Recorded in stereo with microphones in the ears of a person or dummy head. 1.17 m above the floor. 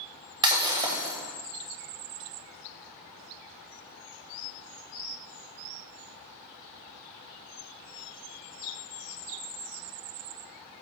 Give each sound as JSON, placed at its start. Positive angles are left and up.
{"t": 0.4, "sound": "breaking glass", "side_deg": -15, "distance_m": 1.4}